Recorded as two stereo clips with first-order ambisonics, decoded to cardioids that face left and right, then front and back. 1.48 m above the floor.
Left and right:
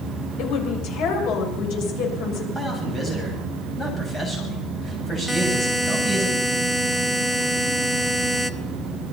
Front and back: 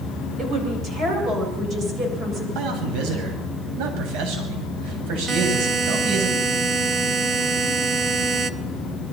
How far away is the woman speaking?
About 7.5 m.